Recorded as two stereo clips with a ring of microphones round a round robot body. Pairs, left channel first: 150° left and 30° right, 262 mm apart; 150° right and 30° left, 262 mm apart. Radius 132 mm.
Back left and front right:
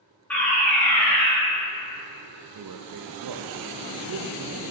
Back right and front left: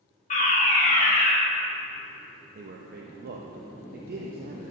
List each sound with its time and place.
0.3 s a fire alarm: 130° right, 1.6 m
2.5 s a man speaking: 25° right, 0.5 m